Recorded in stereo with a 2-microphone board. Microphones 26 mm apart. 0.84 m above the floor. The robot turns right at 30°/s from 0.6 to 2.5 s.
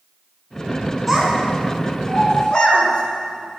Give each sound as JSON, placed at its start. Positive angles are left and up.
{"t": 1.1, "sound": "a child speaking", "side_deg": -10, "distance_m": 4.5}